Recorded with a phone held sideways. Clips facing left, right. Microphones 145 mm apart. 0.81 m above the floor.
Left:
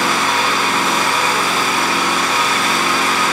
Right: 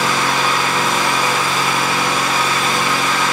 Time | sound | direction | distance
0.0 | an engine running | 75° left (ahead or behind) | 3 m